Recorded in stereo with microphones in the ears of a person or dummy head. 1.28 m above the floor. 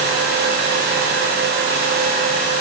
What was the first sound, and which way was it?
Only background noise.